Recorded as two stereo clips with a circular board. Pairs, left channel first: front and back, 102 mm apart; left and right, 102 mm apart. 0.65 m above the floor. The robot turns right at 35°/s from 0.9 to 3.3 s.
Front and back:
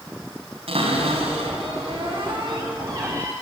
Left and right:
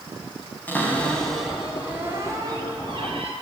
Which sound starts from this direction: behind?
A cupboard door, at 0.7 s.